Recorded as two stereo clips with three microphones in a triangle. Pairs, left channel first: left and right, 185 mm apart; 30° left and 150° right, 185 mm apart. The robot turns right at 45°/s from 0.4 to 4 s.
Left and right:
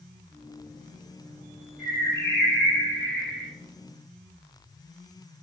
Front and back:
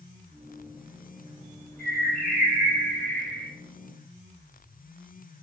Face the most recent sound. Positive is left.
turn(degrees=145)